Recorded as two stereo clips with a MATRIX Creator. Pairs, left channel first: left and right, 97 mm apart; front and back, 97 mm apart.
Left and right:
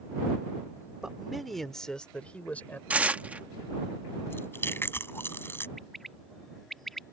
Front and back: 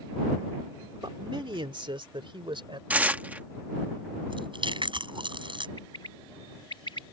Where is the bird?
5° left.